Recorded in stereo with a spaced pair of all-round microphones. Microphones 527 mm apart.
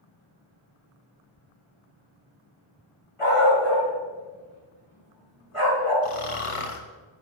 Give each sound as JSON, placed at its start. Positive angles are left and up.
{"t": 3.2, "sound": "a dog barking", "side_deg": 70, "distance_m": 4.5}
{"t": 6.0, "sound": "snoring", "side_deg": 75, "distance_m": 1.0}